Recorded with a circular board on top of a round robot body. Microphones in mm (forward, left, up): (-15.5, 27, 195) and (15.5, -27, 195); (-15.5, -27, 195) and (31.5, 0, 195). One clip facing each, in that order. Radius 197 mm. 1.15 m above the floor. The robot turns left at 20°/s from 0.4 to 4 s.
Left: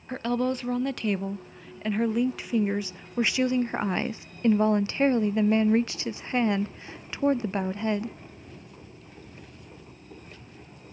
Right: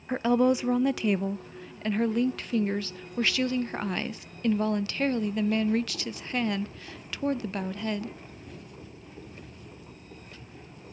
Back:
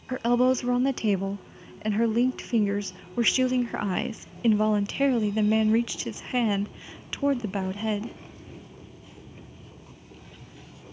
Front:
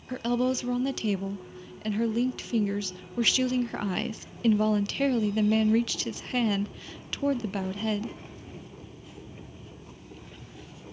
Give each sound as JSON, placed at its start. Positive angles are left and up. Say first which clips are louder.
{"t": 0.1, "sound": "a woman speaking", "louder": "right 4 dB, back 4 dB", "azimuth_deg": -130, "distance_m": 0.6}